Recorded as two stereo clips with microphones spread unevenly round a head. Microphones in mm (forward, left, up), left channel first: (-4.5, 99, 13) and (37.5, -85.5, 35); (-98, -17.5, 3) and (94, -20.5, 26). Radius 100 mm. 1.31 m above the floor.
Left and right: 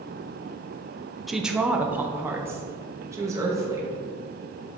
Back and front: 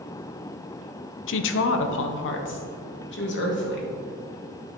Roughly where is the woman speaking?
Behind.